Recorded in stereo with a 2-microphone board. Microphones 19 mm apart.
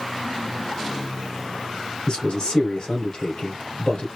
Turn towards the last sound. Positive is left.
turn(degrees=50)  # may be behind; listen again after turning